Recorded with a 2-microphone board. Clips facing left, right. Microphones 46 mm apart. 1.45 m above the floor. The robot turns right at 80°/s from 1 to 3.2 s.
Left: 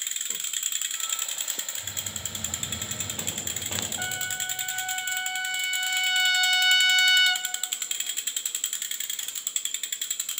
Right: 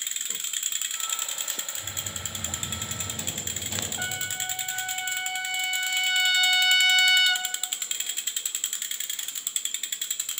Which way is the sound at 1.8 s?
80° right.